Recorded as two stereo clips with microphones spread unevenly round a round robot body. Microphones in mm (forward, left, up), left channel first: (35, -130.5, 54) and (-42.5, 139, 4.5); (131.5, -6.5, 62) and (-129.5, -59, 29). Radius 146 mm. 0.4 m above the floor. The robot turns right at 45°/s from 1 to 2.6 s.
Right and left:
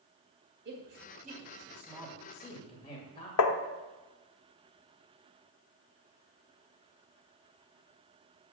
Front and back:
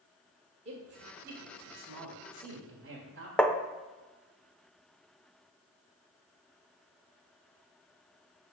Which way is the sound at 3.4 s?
80° right.